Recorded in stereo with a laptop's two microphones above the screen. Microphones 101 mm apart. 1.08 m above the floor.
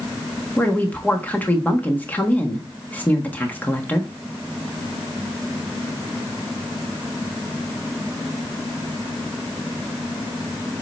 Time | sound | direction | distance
0.6 | a woman speaking | 15° left (ahead or behind) | 1.3 m